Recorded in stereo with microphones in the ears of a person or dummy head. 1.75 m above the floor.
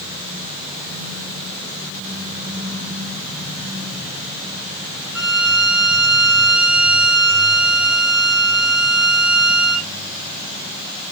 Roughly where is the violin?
Right.